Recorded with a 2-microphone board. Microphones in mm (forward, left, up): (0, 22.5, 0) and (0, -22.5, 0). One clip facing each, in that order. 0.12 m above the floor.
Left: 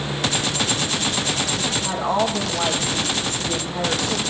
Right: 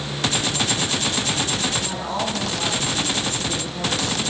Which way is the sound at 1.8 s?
50° left (ahead or behind).